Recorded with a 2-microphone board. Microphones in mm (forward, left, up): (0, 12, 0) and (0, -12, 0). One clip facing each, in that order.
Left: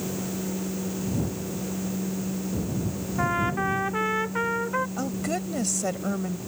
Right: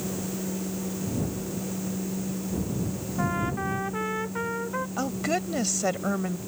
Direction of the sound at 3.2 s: 20° left (ahead or behind).